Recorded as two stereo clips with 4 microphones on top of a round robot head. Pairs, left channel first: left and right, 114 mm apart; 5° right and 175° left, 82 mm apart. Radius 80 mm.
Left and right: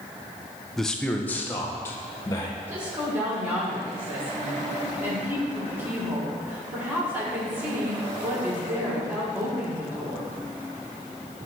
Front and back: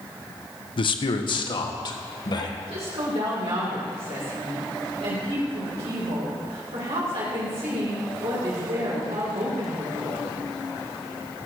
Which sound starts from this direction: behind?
A woman speaking, at 2.6 s.